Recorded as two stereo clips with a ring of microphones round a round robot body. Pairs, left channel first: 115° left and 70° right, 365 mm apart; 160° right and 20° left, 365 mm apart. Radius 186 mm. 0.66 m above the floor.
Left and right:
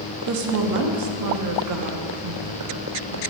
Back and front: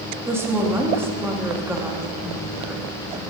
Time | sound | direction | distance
0.3 | a woman speaking | 60° right | 1.0 m